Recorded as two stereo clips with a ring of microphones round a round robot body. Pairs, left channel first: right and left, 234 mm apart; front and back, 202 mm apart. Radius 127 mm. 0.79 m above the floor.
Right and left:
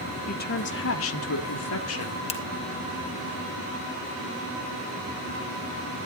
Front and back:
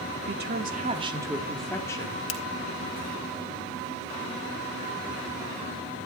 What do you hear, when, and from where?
0.3 s a woman speaking: 145° right, 2 m; by 2.2 s 70° right, 2.5 m
2.3 s a finger snap: 25° right, 2.5 m